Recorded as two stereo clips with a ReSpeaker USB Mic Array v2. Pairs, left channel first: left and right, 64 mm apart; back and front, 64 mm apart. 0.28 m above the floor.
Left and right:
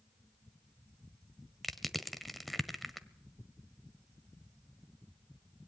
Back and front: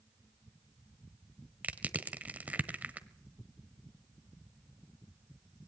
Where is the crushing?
Straight ahead, 1.2 m.